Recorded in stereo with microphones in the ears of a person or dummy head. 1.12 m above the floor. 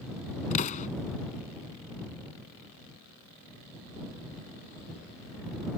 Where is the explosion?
45° left (ahead or behind).